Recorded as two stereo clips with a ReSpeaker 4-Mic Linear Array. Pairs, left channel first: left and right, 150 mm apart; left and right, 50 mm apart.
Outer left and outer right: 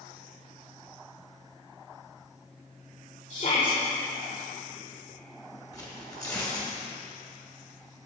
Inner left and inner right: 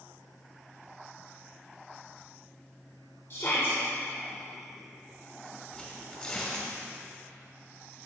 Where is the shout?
55° left (ahead or behind), 1.3 m.